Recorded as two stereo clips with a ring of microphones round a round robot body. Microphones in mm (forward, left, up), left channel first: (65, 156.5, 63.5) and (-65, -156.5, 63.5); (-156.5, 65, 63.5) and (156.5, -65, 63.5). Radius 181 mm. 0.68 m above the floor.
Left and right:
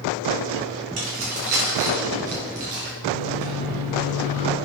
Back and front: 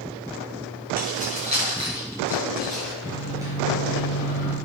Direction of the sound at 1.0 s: 90° right.